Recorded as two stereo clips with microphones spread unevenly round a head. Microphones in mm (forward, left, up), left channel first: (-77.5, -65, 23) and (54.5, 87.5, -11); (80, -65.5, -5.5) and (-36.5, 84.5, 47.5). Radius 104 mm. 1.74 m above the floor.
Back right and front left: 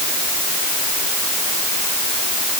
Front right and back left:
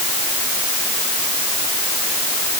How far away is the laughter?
I don't hear laughter.